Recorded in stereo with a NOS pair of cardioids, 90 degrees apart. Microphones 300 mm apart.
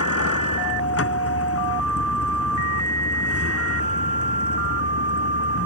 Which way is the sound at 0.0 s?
50° left.